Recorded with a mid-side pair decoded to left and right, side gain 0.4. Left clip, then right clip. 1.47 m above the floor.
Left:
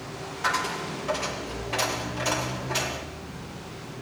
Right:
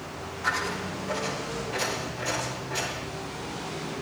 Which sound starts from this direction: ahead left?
A dropped coin, at 0.4 s.